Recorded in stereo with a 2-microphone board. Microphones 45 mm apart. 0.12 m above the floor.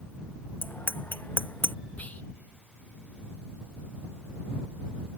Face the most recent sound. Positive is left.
turn(degrees=35)  # may be behind; listen again after turning